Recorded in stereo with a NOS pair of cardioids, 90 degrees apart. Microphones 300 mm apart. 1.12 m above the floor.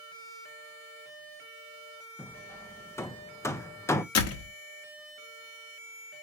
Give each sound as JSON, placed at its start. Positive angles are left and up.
{"t": 2.2, "sound": "hammering", "azimuth_deg": 10, "distance_m": 0.5}
{"t": 4.2, "sound": "a door slam", "azimuth_deg": 60, "distance_m": 1.0}